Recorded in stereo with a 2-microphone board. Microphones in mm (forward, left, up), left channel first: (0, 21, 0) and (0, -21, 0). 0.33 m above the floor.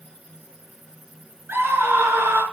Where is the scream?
70° right (ahead or behind), 5 m.